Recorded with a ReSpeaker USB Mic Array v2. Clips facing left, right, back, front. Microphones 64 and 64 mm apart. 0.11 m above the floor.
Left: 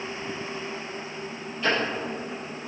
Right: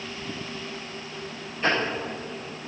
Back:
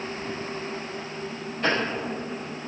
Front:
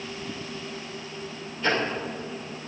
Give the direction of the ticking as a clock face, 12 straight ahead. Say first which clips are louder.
Right 1 dB, even; 5 o'clock.